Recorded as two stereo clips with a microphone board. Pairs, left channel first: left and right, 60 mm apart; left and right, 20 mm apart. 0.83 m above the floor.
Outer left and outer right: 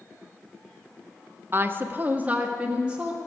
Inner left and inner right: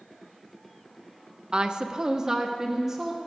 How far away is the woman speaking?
About 0.7 m.